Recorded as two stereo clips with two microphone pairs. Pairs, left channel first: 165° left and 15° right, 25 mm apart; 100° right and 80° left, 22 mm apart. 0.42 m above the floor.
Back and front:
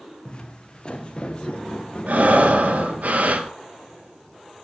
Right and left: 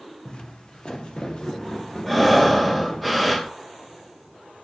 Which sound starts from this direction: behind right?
Footsteps, at 0.2 s.